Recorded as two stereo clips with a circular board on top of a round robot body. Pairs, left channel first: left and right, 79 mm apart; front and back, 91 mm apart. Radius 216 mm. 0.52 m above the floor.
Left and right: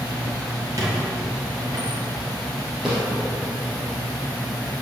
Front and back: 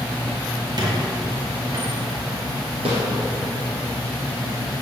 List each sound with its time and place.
0.8 s a squeak: 135° right, 2 m
2.9 s a snare drum: 175° right, 2.5 m